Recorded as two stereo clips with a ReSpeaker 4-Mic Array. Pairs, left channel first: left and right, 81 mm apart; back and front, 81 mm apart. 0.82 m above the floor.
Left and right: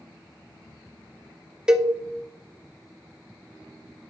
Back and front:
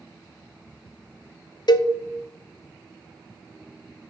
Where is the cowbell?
170° right, 0.6 m.